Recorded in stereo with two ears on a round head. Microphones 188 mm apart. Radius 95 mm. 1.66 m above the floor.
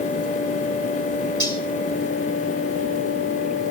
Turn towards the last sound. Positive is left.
turn(degrees=20)  # may be behind; listen again after turning